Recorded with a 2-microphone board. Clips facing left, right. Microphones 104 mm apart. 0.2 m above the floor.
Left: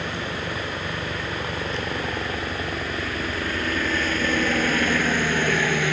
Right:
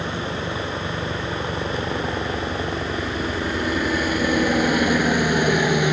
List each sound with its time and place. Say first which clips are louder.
0.0 s a helicopter: right 3 dB; 10° right (ahead or behind); by 5.9 s 15° right (ahead or behind)